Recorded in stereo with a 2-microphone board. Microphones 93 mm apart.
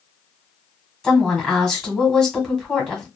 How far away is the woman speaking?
About 1.4 m.